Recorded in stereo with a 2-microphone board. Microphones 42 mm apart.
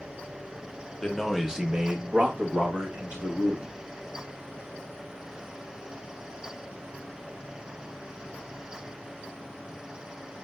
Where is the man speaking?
10° left (ahead or behind), 0.8 m; by 3.8 s 70° right (ahead or behind), 1.8 m.